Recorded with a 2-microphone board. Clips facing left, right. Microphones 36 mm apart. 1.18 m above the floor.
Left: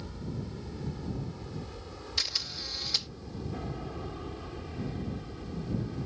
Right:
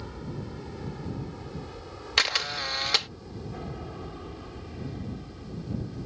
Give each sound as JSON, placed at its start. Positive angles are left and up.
{"t": 0.0, "sound": "an aircraft", "side_deg": -20}
{"t": 2.2, "sound": "a camera shutter", "side_deg": -60}